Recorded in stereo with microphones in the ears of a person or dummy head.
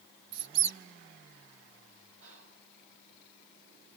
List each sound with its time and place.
0.3 s a squeak: 55° right (ahead or behind), 0.6 m
2.2 s whispering: 85° right, 8.5 m